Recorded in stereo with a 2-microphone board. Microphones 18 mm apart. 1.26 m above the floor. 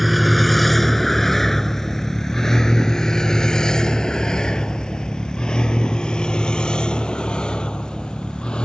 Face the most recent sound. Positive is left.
turn(degrees=60)  # may be behind; listen again after turning